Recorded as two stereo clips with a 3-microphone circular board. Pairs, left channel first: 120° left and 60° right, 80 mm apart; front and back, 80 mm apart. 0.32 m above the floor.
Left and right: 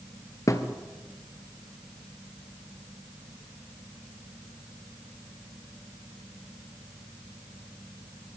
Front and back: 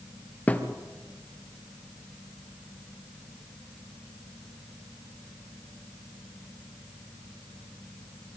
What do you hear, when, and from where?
0.5 s a thud: 70° left, 1.6 m